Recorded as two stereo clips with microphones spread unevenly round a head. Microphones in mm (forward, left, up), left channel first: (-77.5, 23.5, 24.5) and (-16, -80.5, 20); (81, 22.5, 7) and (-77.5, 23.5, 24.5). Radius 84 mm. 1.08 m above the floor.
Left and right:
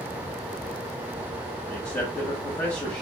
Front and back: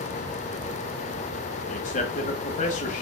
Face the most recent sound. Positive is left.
turn(degrees=50)